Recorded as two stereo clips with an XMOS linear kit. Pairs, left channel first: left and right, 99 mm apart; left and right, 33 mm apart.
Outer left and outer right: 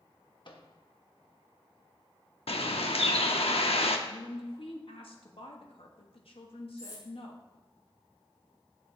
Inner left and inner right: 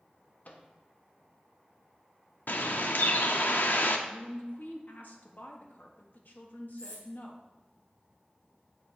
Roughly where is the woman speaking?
Left.